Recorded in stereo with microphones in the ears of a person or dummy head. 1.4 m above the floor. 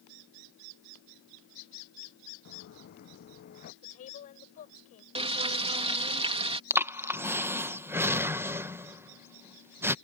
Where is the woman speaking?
35° left (ahead or behind).